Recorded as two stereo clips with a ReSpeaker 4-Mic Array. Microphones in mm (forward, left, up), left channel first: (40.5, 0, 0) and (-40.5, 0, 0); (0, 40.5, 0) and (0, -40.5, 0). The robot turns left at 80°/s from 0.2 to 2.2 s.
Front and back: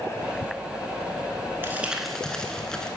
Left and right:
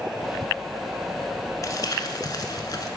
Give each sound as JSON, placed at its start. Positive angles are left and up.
{"t": 1.6, "sound": "crumpling", "azimuth_deg": 125, "distance_m": 0.7}